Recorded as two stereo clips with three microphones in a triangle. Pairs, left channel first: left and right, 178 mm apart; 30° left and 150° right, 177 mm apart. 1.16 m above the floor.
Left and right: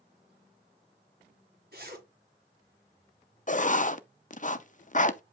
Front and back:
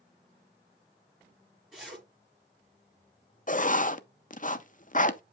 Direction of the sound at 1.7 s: 65° right.